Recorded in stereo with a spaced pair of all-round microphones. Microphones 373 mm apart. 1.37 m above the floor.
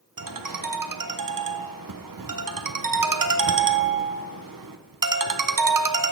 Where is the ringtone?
60° right (ahead or behind), 0.5 m.